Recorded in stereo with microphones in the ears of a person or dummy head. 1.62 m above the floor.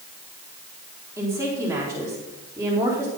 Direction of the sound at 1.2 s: 15° right (ahead or behind).